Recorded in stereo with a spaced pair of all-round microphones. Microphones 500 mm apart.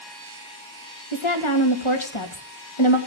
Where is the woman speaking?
70° left (ahead or behind), 2.5 m.